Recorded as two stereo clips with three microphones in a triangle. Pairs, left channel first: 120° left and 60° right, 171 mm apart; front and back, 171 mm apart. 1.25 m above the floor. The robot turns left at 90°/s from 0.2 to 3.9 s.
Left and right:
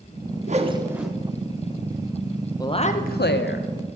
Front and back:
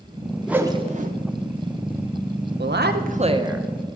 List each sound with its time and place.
0.5 s a whoosh: 95° right, 0.7 m; by 1.1 s 155° right, 0.7 m
2.6 s a woman speaking: 170° right, 0.7 m; by 3.7 s 90° left, 0.7 m